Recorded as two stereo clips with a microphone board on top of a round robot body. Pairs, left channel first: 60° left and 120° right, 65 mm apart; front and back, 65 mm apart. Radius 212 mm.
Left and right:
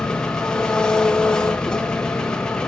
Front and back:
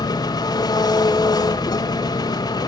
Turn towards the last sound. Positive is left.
turn(degrees=-20)